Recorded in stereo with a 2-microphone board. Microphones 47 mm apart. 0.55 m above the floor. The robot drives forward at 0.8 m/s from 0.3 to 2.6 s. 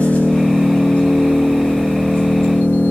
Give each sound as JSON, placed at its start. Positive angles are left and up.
{"t": 0.0, "sound": "an engine running", "side_deg": 25, "distance_m": 7.5}